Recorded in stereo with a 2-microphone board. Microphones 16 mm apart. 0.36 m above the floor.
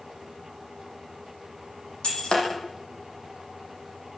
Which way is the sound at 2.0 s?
65° left (ahead or behind).